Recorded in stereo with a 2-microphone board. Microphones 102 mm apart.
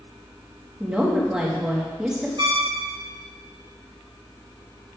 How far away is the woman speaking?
About 1.8 m.